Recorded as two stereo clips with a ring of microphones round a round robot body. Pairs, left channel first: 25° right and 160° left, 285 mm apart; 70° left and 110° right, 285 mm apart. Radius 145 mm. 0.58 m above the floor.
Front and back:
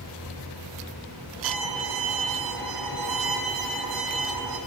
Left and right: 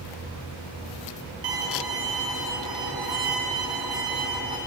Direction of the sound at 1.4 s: 170° left.